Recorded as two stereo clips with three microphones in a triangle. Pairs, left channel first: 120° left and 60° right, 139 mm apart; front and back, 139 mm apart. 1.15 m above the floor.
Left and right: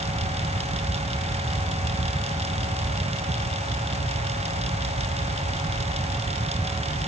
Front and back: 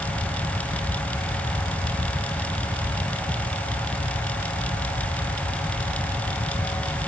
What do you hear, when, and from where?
Only background noise.